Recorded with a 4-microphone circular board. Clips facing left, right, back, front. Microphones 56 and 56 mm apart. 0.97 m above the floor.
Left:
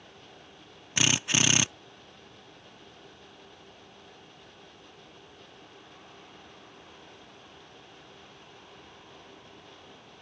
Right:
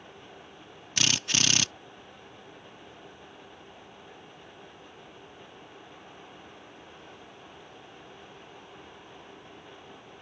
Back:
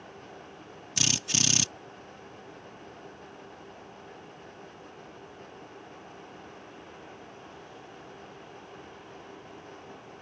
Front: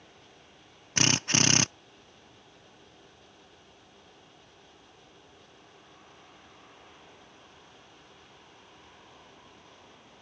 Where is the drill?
25° left.